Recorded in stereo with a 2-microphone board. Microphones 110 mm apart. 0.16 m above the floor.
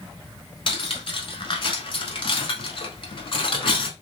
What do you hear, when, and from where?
0.7 s cutlery clinking: 50° left (ahead or behind), 1.0 m